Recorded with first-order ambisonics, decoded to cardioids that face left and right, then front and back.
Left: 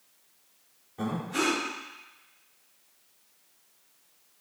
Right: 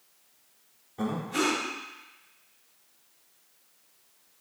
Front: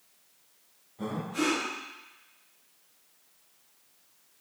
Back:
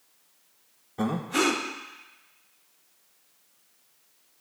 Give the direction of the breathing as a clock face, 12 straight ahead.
6 o'clock.